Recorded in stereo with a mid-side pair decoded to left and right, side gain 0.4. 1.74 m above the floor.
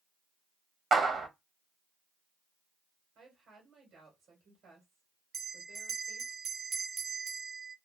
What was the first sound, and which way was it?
A clap, 50° right.